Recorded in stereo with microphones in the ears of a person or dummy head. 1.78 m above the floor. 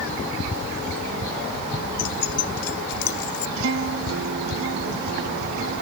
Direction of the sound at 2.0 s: 65° left (ahead or behind).